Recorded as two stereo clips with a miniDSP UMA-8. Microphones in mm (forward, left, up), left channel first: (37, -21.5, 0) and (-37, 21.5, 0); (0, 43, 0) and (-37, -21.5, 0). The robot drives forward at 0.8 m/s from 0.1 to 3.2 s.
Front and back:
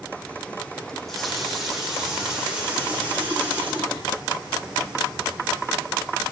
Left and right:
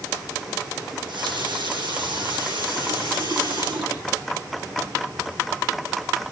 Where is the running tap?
115° right, 5 m; by 4.9 s 130° right, 6 m.